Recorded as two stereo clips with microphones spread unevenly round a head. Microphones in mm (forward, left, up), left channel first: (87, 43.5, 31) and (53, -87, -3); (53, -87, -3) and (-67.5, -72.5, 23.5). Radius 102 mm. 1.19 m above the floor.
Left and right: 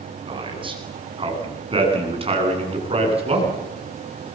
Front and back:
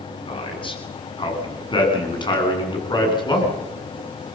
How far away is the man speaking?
About 8.5 m.